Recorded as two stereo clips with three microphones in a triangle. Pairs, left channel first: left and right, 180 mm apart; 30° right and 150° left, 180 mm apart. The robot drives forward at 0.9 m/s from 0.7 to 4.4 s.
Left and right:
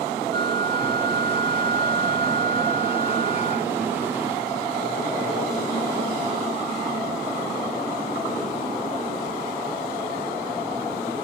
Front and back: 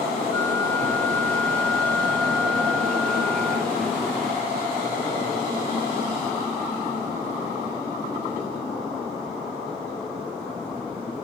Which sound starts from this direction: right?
A flute, at 0.3 s.